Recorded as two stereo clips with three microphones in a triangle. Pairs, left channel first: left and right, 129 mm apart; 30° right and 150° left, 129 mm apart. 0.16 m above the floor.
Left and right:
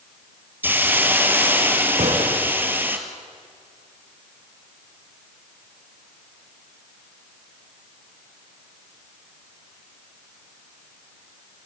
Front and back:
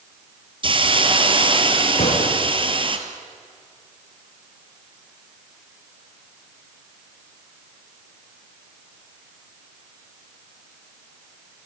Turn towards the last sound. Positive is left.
turn(degrees=-60)